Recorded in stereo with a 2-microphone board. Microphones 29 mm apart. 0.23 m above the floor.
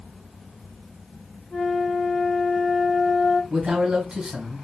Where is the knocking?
I don't hear knocking.